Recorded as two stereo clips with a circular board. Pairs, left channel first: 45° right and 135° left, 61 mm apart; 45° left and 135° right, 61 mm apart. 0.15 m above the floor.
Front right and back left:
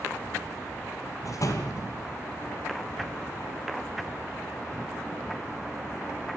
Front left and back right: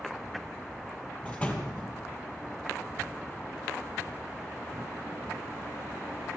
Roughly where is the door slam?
Ahead.